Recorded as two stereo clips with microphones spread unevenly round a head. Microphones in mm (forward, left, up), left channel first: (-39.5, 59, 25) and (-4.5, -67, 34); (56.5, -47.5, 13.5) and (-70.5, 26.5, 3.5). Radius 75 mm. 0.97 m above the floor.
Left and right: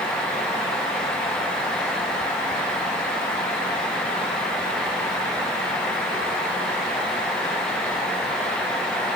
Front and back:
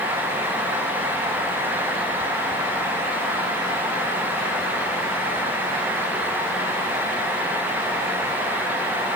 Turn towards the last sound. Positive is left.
No sound to turn to.